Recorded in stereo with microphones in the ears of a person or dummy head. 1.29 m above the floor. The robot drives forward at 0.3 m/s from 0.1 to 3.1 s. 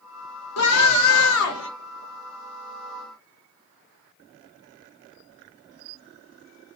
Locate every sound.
0.6 s a scream: 85° left, 1.0 m; by 1.7 s 75° left (ahead or behind), 1.0 m